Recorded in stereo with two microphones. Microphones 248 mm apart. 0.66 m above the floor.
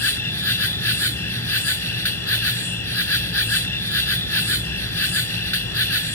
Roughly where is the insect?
Left.